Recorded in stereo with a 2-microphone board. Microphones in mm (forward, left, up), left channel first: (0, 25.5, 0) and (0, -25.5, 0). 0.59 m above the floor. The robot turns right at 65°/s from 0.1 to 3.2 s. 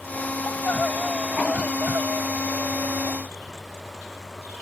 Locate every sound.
0.5 s crying: 130° left; by 3.2 s 50° right